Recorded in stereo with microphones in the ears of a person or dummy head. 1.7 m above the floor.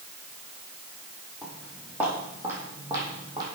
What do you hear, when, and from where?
1.4 s footsteps: 5° right (ahead or behind), 4 m; by 3.4 s 25° right (ahead or behind), 3.5 m